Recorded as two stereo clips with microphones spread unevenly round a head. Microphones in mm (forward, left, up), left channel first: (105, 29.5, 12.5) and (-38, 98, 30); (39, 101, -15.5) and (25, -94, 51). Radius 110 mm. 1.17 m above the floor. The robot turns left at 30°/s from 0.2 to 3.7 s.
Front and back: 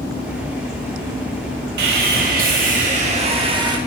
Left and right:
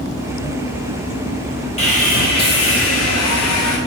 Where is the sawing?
155° left, 2.5 m; by 3.8 s 95° left, 2.5 m.